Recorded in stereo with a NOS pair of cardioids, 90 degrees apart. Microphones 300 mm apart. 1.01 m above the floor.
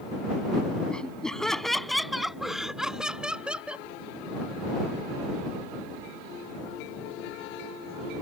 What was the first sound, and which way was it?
Laughter, 5° left.